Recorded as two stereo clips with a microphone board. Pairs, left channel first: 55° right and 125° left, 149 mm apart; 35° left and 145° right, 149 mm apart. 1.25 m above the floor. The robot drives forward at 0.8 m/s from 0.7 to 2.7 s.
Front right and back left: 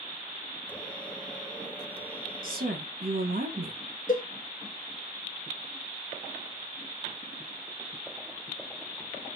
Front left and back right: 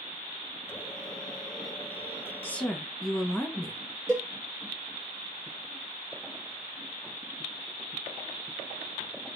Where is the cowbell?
75° right, 1.3 m.